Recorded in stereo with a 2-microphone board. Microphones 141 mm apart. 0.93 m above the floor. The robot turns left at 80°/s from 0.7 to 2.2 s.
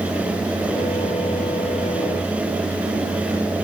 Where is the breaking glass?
No breaking glass in this recording.